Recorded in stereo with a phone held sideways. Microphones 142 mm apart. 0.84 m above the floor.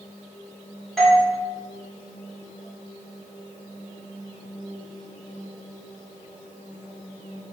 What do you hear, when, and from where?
1.0 s a doorbell: centre (ahead or behind), 0.9 m